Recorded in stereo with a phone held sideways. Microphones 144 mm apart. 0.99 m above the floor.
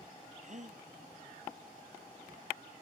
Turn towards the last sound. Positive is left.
turn(degrees=-50)  # may be behind; listen again after turning